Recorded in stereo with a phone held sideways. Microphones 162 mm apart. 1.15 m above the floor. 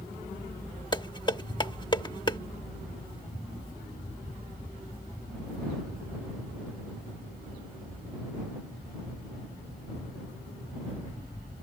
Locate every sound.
0.9 s dishes clattering: 30° left (ahead or behind)